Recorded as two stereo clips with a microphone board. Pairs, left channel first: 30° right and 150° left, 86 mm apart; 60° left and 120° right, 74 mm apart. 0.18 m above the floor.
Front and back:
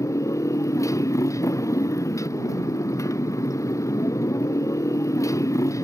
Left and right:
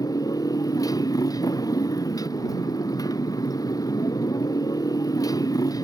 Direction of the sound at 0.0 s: 20° left.